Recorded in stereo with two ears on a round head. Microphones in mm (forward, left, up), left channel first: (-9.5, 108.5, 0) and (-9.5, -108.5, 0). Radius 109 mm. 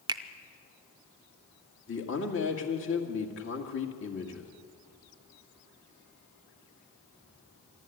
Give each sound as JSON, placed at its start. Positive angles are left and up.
{"t": 0.1, "sound": "a finger snap", "side_deg": -15, "distance_m": 0.6}
{"t": 1.9, "sound": "a man speaking", "side_deg": 50, "distance_m": 2.0}